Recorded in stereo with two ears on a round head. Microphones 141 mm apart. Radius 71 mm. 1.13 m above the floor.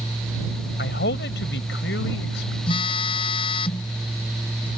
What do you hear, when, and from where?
0.8 s a man speaking: 65° left (ahead or behind); by 2.6 s 85° left
2.7 s a phone buzzing: 35° left (ahead or behind)